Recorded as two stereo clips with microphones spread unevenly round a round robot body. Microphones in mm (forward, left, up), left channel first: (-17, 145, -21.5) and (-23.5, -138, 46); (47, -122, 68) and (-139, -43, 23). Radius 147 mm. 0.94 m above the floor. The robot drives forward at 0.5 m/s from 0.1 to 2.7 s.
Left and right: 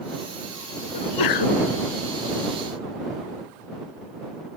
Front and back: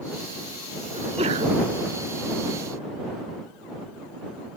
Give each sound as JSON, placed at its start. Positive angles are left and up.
{"t": 0.9, "sound": "a sneeze", "azimuth_deg": 85}